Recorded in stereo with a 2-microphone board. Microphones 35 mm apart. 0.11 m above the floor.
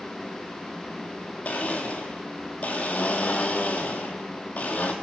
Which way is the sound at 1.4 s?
50° left (ahead or behind).